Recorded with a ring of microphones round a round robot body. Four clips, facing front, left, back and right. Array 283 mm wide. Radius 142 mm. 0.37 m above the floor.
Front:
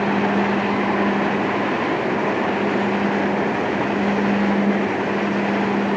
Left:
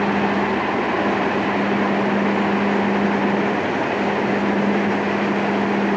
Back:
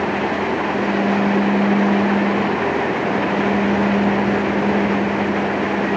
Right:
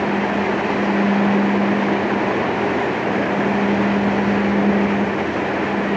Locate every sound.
Only background noise.